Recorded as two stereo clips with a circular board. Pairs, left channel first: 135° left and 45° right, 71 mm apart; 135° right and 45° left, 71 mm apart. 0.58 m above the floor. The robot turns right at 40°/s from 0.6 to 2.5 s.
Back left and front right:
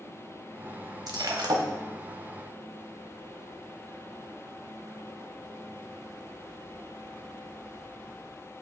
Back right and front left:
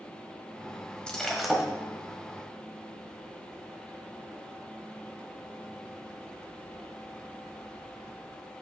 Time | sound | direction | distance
1.1 | breaking glass | 60° right | 1.3 m